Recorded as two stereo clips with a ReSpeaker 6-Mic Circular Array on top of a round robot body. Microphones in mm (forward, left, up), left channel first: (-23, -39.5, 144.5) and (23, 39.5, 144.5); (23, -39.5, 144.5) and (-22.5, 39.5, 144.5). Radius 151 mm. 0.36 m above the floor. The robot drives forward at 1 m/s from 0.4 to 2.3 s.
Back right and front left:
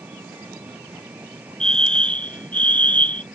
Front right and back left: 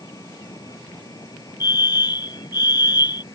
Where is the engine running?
10° right.